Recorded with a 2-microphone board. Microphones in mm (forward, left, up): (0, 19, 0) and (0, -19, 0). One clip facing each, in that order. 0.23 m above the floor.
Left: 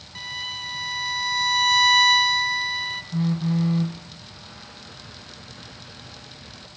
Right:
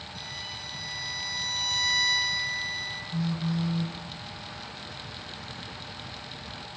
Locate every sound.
0.1 s a violin: 60° left (ahead or behind), 1.3 m
3.1 s a phone buzzing: 45° left (ahead or behind), 1.3 m